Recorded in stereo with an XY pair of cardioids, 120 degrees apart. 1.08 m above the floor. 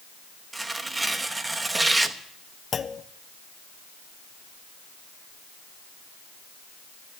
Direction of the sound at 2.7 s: 30° left.